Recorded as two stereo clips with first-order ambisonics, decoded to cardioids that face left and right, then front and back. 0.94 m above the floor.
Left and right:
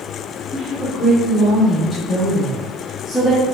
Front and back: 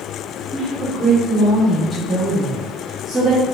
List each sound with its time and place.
0.5 s a woman speaking: 105° left, 0.8 m